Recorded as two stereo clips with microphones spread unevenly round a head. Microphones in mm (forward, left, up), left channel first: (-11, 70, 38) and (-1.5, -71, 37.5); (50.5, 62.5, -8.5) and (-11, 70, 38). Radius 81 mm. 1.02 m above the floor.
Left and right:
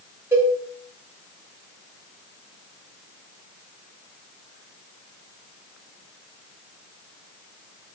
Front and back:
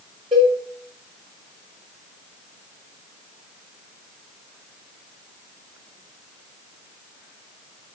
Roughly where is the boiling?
I don't hear boiling.